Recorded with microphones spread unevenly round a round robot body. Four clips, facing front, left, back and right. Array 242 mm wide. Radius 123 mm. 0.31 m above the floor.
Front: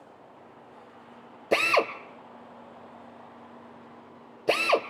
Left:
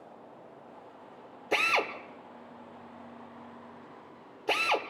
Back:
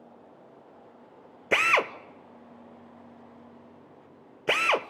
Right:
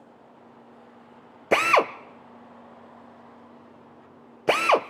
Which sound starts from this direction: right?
A drill, at 1.5 s.